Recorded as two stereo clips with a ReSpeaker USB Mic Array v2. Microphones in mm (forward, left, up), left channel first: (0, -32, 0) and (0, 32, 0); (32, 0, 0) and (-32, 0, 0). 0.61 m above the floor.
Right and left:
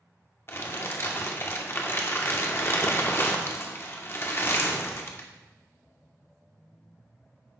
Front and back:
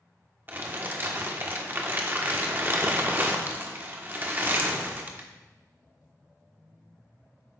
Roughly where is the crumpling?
Behind right.